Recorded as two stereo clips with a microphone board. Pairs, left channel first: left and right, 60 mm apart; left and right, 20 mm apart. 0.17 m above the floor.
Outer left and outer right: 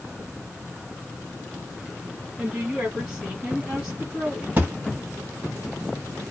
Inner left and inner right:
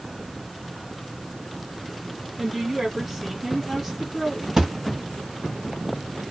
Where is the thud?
30° right (ahead or behind), 1.6 m.